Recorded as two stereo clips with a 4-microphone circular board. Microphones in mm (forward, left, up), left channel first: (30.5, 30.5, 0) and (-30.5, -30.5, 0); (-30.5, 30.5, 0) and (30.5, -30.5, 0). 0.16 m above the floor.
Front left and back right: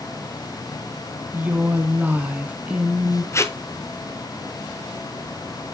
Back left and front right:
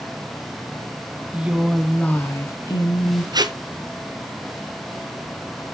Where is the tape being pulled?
10° right, 0.8 m.